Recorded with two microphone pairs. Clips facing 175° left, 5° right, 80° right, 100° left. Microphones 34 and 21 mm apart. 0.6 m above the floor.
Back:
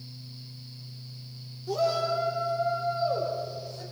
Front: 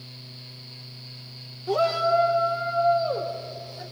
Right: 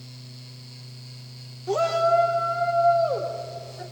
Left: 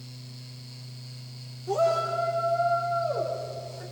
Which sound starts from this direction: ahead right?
A shout, at 1.7 s.